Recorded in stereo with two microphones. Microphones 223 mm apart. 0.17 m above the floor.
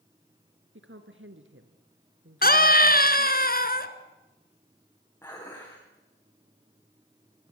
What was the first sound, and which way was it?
A woman speaking, 60° right (ahead or behind).